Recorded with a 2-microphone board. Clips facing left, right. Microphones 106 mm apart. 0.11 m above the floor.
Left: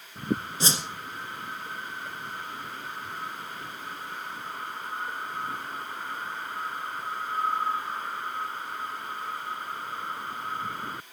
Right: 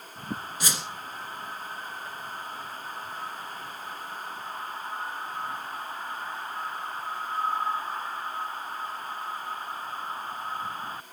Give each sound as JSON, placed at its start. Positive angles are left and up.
{"t": 0.6, "sound": "a whoosh", "side_deg": 25, "distance_m": 1.5}